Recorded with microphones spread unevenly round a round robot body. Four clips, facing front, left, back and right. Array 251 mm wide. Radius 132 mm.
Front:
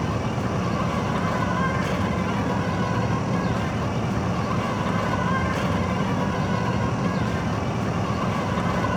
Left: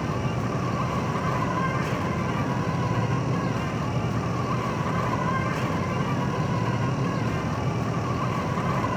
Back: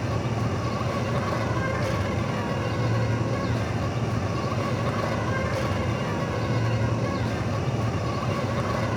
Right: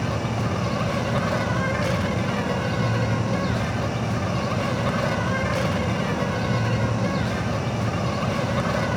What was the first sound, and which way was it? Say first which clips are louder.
An insect: right 2 dB, front 2 dB; 75° right.